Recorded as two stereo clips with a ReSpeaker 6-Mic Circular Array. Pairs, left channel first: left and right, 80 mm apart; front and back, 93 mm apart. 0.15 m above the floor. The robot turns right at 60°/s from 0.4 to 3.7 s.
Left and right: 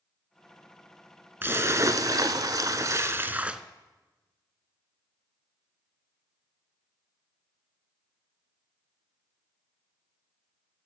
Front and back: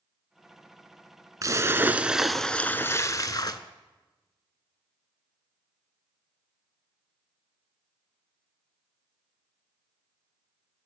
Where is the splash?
145° right, 0.5 m; by 3.6 s 15° right, 0.5 m.